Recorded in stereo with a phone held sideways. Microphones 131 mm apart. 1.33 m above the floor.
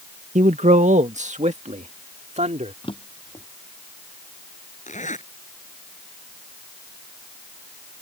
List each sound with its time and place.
0.3 s a man speaking: 70° right (ahead or behind); by 2.7 s 60° right (ahead or behind)
2.8 s a drawer: 45° left (ahead or behind)
4.9 s a zipper: 70° left (ahead or behind)